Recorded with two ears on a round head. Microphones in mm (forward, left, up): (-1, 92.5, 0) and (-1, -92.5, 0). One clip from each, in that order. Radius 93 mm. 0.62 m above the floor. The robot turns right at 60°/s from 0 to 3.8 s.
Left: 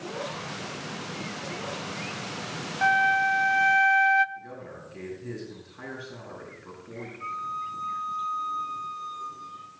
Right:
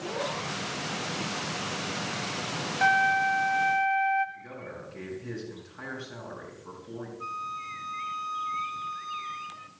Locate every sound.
2.8 s a flute: 5° right, 0.6 m; by 4.2 s 55° left, 0.6 m
4.3 s a man speaking: 20° right (ahead or behind), 7 m
7.2 s a flute: 40° right (ahead or behind), 0.9 m